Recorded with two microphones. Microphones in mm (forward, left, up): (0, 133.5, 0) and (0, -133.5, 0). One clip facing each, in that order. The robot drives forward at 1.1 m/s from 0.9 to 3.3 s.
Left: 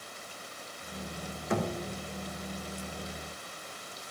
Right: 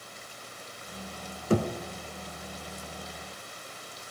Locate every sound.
1.5 s knocking: 35° right (ahead or behind), 1.2 m; by 1.7 s 30° right (ahead or behind), 1.4 m